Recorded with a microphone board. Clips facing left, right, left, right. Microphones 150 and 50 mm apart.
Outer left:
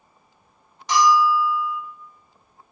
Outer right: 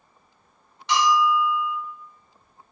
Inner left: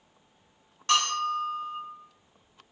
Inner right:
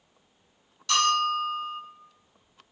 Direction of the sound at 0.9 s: 40° left (ahead or behind).